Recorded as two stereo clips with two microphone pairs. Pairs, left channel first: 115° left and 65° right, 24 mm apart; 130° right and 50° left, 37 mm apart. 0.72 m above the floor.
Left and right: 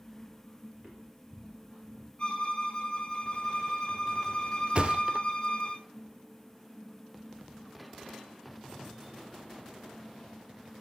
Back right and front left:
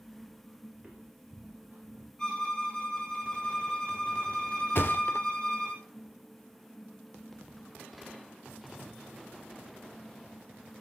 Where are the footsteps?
25° right, 3 m; by 2.1 s straight ahead, 4.5 m.